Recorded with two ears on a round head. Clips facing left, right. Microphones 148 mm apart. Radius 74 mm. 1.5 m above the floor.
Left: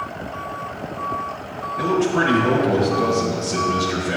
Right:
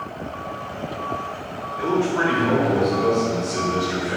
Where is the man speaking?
70° left (ahead or behind), 3 m.